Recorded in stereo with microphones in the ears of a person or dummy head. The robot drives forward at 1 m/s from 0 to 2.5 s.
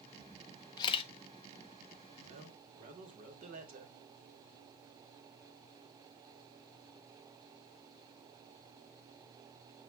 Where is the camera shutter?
20° left (ahead or behind), 0.9 m; by 1.1 s 35° left (ahead or behind), 0.6 m.